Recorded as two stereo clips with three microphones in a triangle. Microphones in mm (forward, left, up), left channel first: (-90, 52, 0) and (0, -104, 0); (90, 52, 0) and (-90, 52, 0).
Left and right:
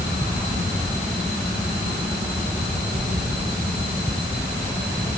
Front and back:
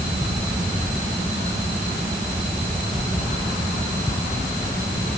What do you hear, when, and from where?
Only background noise.